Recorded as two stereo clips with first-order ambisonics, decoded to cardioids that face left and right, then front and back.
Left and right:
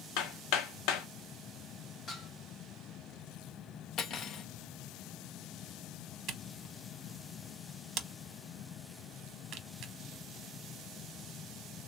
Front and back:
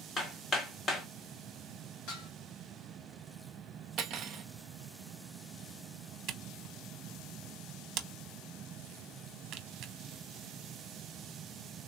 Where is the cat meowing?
I don't hear a cat meowing.